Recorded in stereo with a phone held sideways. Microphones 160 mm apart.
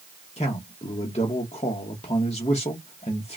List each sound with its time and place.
0.4 s a man speaking: 40° left (ahead or behind), 1.0 m